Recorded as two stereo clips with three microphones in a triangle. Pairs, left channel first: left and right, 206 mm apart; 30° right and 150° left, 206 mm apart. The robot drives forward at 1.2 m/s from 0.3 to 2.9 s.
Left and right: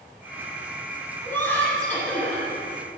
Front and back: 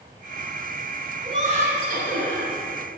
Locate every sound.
1.2 s laughter: 155° left, 1.5 m; by 2.5 s 175° left, 2.5 m